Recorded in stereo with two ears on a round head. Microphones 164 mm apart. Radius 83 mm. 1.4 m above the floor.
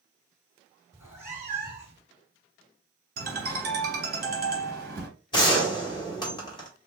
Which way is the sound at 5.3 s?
25° left (ahead or behind).